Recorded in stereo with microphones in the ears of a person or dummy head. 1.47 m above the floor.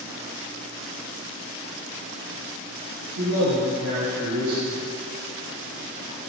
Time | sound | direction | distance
3.1 | a man speaking | 80° right | 1.0 m